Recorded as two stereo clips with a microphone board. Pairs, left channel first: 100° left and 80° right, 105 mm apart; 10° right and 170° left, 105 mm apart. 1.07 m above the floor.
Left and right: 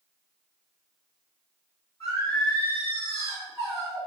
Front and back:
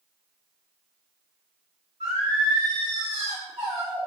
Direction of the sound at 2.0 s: 160° left.